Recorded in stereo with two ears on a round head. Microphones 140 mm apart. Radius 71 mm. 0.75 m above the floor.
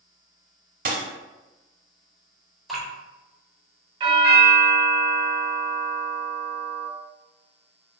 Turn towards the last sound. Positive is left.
turn(degrees=-30)  # may be behind; listen again after turning